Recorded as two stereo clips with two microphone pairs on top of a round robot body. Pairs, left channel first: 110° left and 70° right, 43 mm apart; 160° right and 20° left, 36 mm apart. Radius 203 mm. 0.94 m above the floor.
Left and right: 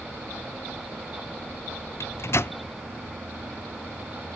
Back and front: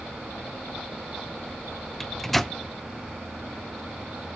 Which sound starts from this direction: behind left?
A microwave, at 2.0 s.